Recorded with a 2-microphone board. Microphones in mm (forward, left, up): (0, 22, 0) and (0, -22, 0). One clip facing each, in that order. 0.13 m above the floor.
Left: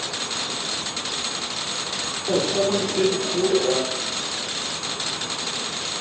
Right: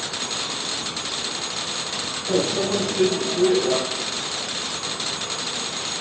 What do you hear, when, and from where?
2.3 s a microwave: 30° left (ahead or behind), 2 m